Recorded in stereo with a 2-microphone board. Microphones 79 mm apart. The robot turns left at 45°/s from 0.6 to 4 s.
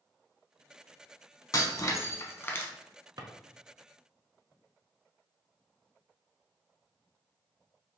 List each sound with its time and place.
1.5 s breaking glass: 85° left, 0.5 m; by 2.7 s 35° left, 0.5 m
3.2 s a drawer: 60° right (ahead or behind), 0.5 m; by 3.3 s 55° right (ahead or behind), 0.5 m